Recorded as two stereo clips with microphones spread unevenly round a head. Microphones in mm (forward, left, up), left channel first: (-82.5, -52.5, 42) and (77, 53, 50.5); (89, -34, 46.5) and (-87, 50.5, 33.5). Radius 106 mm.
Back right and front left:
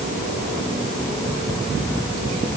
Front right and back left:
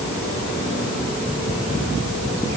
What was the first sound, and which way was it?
Only background noise.